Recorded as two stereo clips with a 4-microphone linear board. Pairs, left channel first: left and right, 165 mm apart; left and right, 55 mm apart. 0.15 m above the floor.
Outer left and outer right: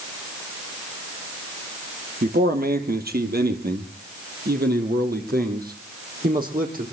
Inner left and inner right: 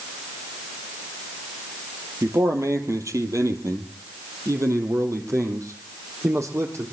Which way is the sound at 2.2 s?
65° right (ahead or behind).